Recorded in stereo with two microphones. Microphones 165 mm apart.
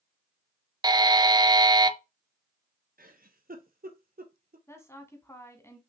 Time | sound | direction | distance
0.8 | a buzzer | 25° right (ahead or behind) | 0.6 m
3.0 | a giggle | 65° right (ahead or behind) | 1.1 m
4.7 | a woman speaking | 15° left (ahead or behind) | 1.4 m